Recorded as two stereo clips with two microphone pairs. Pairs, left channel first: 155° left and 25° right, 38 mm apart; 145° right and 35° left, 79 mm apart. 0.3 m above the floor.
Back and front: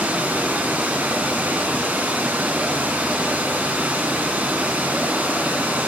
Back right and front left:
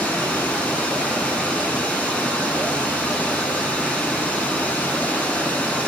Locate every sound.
0.0 s running water: 70° right, 3 m